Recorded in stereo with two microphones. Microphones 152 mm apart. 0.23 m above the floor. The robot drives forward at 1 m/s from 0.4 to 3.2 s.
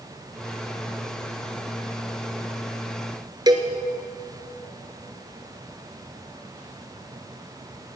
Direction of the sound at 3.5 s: 25° right (ahead or behind).